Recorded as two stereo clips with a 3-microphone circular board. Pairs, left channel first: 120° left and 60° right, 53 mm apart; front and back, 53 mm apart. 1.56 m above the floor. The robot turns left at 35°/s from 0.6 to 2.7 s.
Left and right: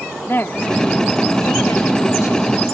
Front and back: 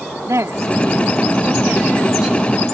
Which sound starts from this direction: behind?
A woman speaking, at 0.3 s.